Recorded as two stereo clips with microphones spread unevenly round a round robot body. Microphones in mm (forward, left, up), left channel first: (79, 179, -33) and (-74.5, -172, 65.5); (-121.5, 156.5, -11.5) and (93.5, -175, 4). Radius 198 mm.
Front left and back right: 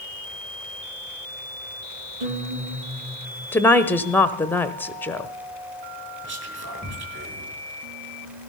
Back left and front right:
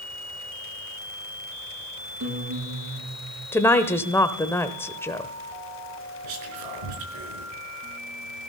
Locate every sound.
2.2 s a guitar: 105° right, 7.5 m
3.5 s a woman speaking: 55° left, 0.9 m
6.2 s whispering: 50° right, 5 m